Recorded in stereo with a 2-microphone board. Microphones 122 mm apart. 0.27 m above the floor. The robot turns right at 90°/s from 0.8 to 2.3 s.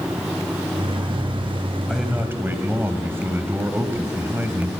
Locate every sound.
1.9 s a man speaking: 175° left, 1.8 m; by 4.7 s 150° right, 1.8 m